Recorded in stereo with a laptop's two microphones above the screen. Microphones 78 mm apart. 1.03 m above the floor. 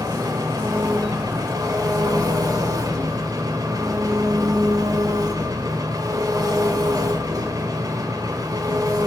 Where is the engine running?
50° right (ahead or behind), 1.6 m.